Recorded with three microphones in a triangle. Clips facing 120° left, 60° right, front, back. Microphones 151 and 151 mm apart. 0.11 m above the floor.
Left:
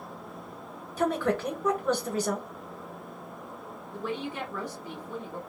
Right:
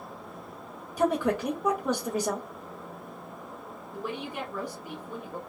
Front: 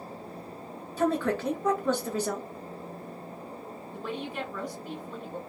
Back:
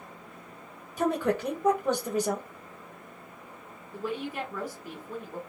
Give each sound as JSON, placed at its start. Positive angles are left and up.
{"t": 1.0, "sound": "a woman speaking", "azimuth_deg": -120, "distance_m": 1.2}
{"t": 3.9, "sound": "a woman speaking", "azimuth_deg": -110, "distance_m": 1.2}